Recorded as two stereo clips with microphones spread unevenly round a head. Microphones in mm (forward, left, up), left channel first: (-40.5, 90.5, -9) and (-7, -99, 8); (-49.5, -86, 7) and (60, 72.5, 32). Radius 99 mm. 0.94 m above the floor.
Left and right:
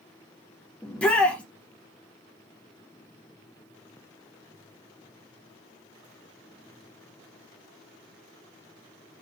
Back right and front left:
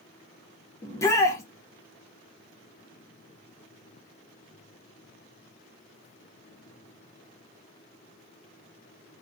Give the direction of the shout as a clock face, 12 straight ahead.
6 o'clock.